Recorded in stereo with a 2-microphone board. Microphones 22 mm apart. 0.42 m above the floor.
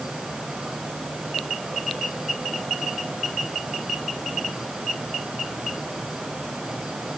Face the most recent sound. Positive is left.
No sound to turn to.